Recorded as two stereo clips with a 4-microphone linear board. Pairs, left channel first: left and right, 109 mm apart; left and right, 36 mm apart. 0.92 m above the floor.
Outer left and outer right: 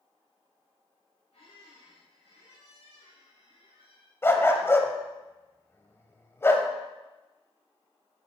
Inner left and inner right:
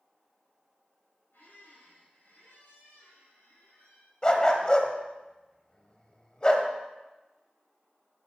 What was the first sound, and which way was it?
A squeak, 80° left.